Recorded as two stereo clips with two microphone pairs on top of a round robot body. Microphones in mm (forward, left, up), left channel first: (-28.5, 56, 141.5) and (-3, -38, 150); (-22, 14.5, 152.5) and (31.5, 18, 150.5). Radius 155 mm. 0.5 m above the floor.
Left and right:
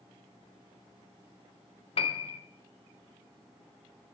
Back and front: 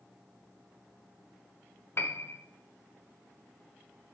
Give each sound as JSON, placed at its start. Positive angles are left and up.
{"t": 2.0, "sound": "a piano", "azimuth_deg": 135, "distance_m": 0.5}